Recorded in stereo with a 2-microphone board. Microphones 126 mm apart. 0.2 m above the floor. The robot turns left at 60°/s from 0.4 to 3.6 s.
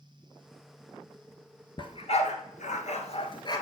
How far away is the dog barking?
About 1.2 m.